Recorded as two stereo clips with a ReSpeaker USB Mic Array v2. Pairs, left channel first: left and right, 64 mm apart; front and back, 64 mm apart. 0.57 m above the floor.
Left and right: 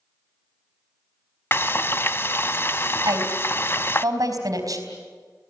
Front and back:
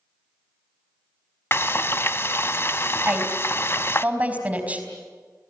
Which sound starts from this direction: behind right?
A woman speaking, at 3.0 s.